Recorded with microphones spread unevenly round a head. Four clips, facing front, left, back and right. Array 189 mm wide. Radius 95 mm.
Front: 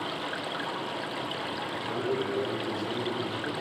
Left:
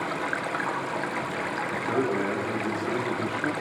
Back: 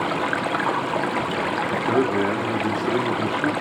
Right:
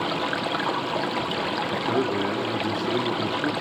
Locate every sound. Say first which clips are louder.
0.0 s running water: right 3 dB, back 11 dB; 155° right, 1.0 m
1.7 s a man speaking: right 1 dB, back 10 dB; 160° right, 4.5 m